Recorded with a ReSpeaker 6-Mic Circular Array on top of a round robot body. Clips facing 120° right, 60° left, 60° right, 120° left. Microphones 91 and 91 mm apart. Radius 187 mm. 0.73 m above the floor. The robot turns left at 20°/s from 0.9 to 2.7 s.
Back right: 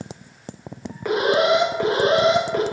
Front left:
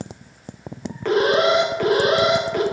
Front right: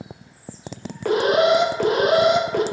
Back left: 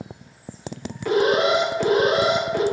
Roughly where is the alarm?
Ahead right.